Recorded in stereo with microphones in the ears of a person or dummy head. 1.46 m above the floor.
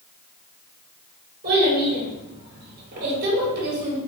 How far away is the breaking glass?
I don't hear breaking glass.